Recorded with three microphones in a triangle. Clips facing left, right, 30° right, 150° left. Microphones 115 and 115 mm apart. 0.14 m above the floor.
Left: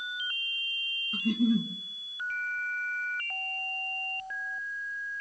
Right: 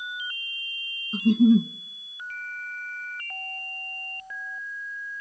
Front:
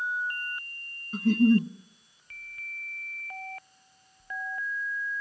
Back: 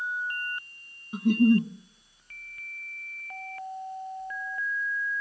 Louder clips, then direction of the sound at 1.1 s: Right 8 dB, even; 140° right.